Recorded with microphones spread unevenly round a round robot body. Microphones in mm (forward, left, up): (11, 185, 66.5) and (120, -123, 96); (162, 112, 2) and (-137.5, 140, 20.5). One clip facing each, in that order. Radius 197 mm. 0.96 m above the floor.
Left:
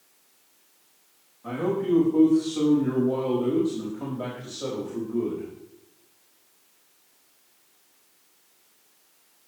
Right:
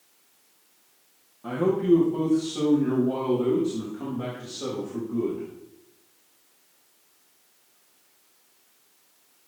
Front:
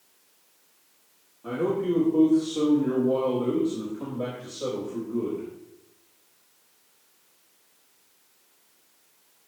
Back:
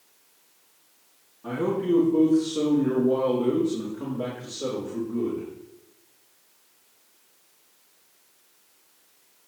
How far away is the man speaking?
About 2.5 m.